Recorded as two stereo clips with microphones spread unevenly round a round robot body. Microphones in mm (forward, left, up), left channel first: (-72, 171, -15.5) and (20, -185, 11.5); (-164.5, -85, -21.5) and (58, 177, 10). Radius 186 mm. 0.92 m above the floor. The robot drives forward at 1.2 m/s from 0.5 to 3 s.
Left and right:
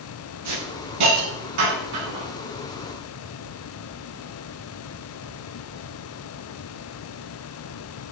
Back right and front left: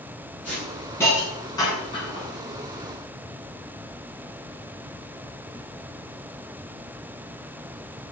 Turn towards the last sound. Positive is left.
turn(degrees=-60)